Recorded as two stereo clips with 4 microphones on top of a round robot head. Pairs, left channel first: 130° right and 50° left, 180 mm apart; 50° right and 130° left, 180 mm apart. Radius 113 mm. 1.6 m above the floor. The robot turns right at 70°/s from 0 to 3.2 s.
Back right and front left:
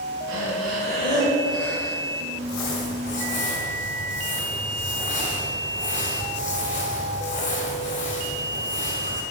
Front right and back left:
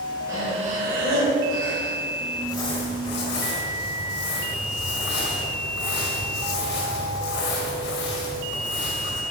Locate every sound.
0.3 s breathing: 55° left, 2 m; by 2.0 s 170° left, 2 m
2.3 s crumpling: 135° right, 4.5 m; by 9.2 s 75° right, 4.5 m